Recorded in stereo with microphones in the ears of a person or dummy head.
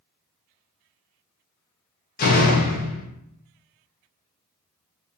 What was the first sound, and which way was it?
A door slam, 45° left (ahead or behind).